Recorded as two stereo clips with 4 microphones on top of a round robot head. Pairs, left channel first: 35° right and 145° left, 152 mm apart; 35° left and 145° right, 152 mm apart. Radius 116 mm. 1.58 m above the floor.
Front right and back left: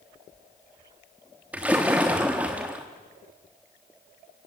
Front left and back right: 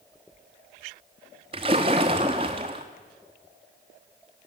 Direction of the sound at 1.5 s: 140° right.